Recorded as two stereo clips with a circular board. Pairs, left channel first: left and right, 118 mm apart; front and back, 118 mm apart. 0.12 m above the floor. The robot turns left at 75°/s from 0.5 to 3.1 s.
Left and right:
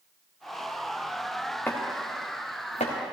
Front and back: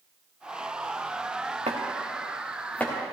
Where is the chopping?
165° left, 2.5 m; by 3.1 s 55° left, 2.5 m.